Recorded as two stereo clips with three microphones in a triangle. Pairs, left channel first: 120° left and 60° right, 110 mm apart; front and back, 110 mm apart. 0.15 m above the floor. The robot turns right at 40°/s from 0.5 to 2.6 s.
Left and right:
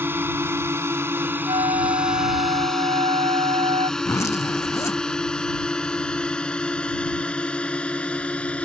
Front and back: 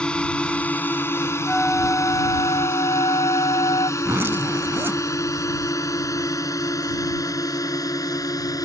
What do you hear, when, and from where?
0.0 s a drone: 60° right; by 8.6 s 45° left
1.5 s a flute: 85° right; by 3.9 s 40° right
4.0 s a zipper: 135° left